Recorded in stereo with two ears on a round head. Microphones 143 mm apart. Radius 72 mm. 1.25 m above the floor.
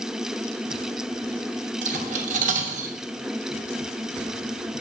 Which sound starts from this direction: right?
Cutlery clinking, at 1.8 s.